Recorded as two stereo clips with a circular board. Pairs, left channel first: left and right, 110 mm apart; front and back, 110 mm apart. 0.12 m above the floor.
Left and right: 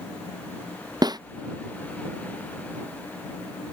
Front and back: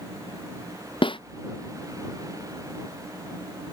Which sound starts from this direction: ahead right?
A snare drum, at 1.0 s.